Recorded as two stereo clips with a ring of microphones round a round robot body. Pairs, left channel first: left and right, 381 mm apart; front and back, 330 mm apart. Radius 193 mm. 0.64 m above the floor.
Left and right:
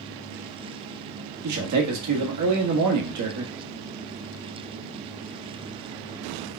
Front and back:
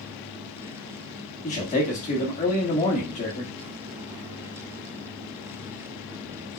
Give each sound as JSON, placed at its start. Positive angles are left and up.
{"t": 1.4, "sound": "a man speaking", "azimuth_deg": -65, "distance_m": 1.4}